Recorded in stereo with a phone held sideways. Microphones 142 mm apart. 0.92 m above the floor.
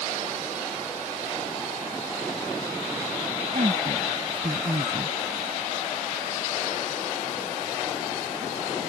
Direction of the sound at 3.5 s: 55° right (ahead or behind).